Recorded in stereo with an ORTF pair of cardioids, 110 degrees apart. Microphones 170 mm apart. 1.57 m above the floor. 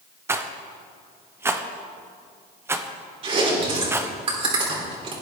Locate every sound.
0.3 s a rattle: 15° right, 0.8 m
3.2 s chewing: 35° right, 3.5 m